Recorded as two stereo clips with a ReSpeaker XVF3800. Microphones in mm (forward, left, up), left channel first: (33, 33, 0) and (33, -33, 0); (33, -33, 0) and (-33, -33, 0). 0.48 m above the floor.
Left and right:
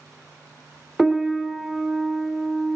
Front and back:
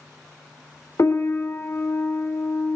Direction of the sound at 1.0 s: 10° right.